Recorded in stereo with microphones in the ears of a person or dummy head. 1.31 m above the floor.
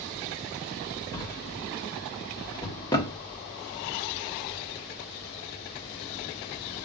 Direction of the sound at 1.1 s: 20° left (ahead or behind).